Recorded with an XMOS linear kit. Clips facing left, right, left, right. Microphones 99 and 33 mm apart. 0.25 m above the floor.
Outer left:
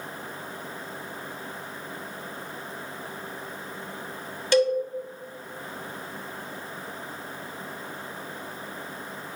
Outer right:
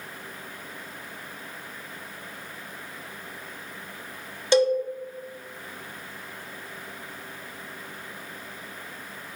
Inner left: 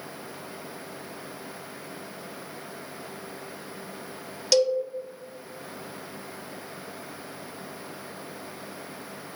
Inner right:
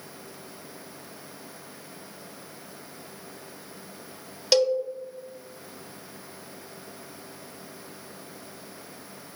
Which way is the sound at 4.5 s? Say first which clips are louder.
Outer right 1 dB, even; 20° right (ahead or behind).